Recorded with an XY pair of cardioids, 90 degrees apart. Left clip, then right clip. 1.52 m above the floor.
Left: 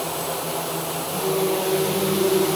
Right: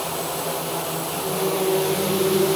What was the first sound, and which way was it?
Only background noise.